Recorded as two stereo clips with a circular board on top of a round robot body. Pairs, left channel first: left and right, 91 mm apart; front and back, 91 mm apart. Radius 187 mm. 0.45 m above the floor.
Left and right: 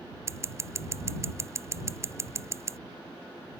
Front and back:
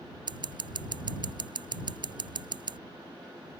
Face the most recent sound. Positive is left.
turn(degrees=-150)